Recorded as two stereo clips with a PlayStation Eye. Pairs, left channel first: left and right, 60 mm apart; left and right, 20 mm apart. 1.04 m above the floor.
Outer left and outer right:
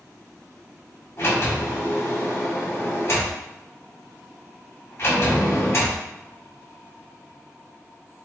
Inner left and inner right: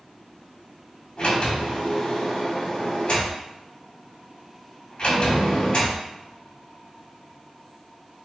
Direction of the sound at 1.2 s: 55° left (ahead or behind).